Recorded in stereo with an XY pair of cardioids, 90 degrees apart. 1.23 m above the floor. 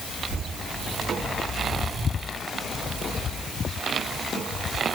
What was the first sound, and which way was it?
Only background noise.